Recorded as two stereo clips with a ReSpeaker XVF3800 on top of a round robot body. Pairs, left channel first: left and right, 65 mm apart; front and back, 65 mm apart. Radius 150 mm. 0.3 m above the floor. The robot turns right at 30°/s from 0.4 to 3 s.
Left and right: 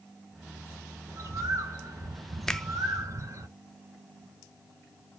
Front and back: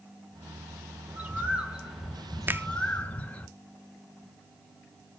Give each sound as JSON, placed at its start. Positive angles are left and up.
{"t": 1.1, "sound": "a bird", "azimuth_deg": -125, "distance_m": 2.0}
{"t": 2.5, "sound": "a finger snap", "azimuth_deg": 165, "distance_m": 0.9}